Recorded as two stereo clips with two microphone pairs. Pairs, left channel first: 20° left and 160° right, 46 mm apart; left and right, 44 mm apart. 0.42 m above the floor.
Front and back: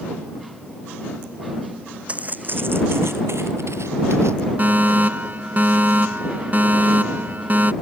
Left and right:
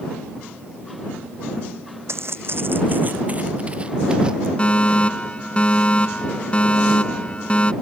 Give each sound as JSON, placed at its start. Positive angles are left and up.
{"t": 2.1, "sound": "footsteps", "azimuth_deg": -95}
{"t": 4.6, "sound": "a fire alarm", "azimuth_deg": 155}